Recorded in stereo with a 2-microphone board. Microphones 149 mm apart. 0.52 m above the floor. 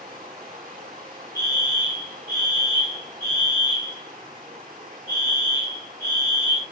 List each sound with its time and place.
0.0 s running water: 70° right (ahead or behind), 2.5 m
1.4 s a fire alarm: 20° left (ahead or behind), 2.5 m